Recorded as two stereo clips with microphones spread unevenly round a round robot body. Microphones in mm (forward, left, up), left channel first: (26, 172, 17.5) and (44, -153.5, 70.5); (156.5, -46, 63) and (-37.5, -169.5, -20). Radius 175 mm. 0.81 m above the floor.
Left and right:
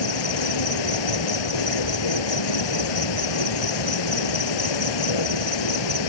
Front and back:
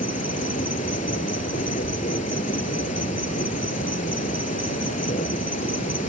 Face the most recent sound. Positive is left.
turn(degrees=105)